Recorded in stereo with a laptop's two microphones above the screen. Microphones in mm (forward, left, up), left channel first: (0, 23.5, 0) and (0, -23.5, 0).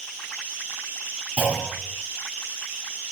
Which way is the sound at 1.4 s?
30° right (ahead or behind).